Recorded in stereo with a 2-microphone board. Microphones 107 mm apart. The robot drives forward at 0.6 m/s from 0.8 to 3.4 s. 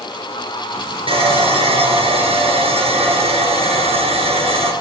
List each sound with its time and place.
1.1 s sawing: 55° right (ahead or behind), 5 m; by 4.7 s 70° right (ahead or behind), 4.5 m